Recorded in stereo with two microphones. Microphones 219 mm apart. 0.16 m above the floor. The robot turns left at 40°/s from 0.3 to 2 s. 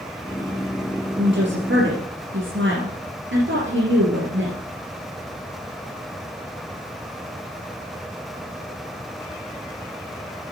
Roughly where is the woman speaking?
Ahead right.